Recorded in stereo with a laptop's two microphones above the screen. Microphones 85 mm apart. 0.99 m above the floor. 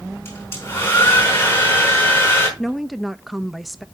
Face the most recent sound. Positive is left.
turn(degrees=0)  # may be behind; listen again after turning